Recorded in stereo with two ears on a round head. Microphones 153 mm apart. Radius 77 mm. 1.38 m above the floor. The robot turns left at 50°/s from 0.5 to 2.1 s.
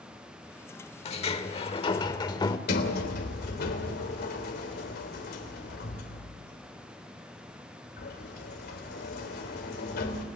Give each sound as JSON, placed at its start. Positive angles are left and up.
{"t": 1.1, "sound": "a sliding door", "azimuth_deg": 100, "distance_m": 1.2}
{"t": 2.7, "sound": "a sliding door", "side_deg": 65, "distance_m": 3.0}